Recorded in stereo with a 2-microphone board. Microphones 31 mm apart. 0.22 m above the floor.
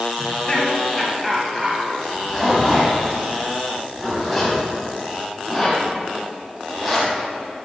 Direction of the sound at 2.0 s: 10° left (ahead or behind).